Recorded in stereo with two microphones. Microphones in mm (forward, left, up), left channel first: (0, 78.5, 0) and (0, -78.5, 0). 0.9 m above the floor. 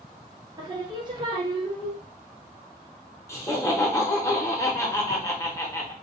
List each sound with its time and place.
0.6 s singing: 30° right (ahead or behind), 0.7 m
3.3 s laughter: 20° left (ahead or behind), 0.8 m